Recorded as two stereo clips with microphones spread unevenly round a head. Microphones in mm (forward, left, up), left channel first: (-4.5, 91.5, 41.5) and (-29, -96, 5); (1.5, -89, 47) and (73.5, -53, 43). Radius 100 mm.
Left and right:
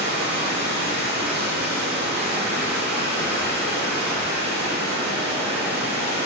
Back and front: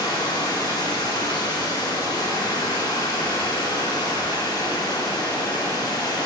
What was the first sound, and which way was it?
Running water, 130° right.